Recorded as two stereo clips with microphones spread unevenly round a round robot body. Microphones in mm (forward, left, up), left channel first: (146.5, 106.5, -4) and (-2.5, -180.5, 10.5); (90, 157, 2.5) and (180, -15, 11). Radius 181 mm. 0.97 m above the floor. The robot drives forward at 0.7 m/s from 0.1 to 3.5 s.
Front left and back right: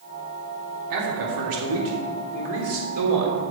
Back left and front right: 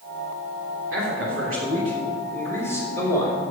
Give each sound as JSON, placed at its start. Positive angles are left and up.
{"t": 0.9, "sound": "a man speaking", "azimuth_deg": -95, "distance_m": 3.0}